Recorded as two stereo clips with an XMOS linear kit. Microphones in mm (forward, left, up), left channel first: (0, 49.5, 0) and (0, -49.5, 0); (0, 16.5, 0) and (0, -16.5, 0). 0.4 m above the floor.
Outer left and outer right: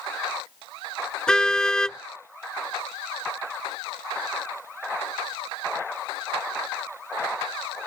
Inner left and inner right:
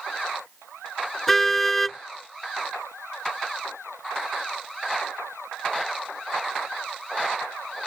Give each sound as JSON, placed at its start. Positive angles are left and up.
{"t": 1.3, "sound": "a car horn", "side_deg": 10}